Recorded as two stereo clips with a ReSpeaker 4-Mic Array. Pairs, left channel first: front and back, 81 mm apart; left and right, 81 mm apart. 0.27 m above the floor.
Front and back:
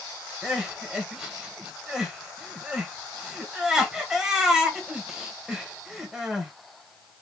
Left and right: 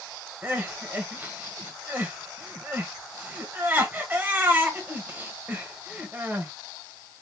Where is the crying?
110° right, 1.4 m.